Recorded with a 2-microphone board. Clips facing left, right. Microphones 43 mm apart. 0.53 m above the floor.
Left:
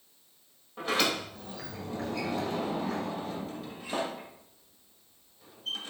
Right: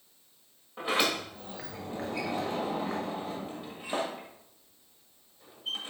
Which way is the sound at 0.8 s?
20° right (ahead or behind).